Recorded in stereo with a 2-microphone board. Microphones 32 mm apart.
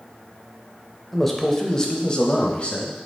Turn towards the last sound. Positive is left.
turn(degrees=40)  # may be behind; listen again after turning